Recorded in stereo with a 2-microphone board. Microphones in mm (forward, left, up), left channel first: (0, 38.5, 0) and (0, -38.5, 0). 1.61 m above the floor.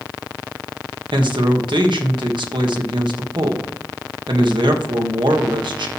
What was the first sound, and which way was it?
A man speaking, 75° right (ahead or behind).